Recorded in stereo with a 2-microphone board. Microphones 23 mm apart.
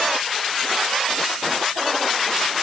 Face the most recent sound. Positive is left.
No sound to turn to.